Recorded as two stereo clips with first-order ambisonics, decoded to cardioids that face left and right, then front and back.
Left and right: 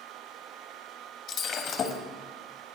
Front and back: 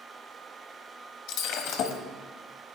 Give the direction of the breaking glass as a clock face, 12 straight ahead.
11 o'clock.